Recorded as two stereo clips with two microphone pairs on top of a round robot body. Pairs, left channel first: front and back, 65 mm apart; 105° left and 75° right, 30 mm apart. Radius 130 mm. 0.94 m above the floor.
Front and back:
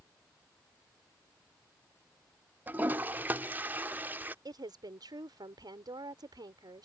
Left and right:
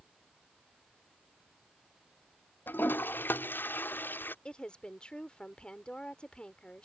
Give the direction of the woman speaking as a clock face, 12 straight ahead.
6 o'clock.